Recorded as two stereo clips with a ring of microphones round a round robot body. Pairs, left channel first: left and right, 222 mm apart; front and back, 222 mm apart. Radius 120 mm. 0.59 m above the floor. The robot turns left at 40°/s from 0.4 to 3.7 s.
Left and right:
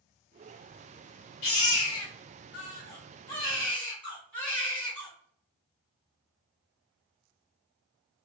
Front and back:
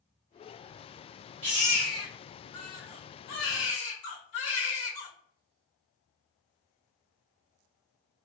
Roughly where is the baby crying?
Left.